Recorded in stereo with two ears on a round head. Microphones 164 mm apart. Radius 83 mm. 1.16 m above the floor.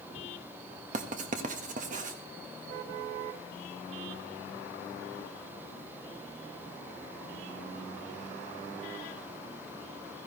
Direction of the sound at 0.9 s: 45° right (ahead or behind).